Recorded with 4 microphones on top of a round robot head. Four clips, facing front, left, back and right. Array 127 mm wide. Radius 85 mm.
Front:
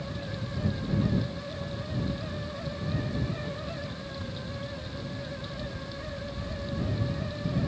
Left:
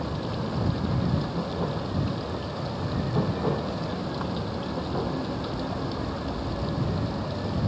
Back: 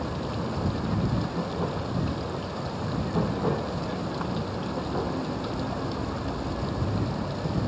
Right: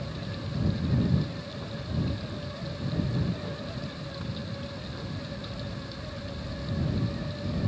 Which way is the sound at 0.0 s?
140° left.